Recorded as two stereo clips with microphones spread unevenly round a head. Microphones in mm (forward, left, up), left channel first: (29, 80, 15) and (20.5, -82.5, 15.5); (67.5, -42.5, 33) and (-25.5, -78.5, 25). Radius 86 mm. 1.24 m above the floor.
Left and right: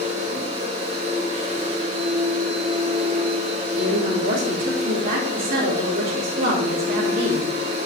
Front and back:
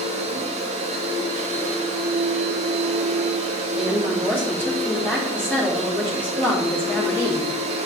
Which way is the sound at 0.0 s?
150° right.